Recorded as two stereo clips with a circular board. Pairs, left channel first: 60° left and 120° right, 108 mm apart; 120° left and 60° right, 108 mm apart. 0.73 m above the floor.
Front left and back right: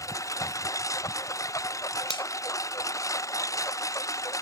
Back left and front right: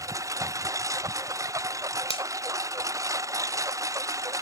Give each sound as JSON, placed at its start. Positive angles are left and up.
{"t": 0.0, "sound": "a lawn mower", "azimuth_deg": 0}
{"t": 2.1, "sound": "a finger snap", "azimuth_deg": 95}